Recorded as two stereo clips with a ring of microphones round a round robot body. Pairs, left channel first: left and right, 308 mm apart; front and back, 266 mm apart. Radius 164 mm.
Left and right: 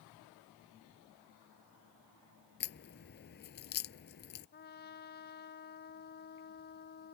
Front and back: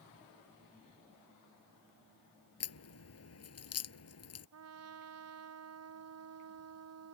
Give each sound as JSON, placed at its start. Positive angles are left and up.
{"t": 2.6, "sound": "a crack", "azimuth_deg": 30}
{"t": 4.5, "sound": "a trumpet", "azimuth_deg": 150}